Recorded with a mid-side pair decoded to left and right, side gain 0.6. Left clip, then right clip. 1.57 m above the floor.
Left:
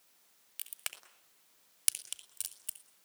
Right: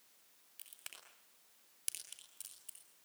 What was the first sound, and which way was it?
A crack, 60° left.